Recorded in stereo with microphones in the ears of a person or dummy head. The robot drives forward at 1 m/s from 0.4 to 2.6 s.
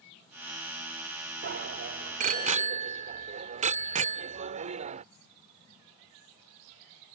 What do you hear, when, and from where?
1.4 s a bicycle bell: 50° right (ahead or behind); by 5.0 s 30° right (ahead or behind)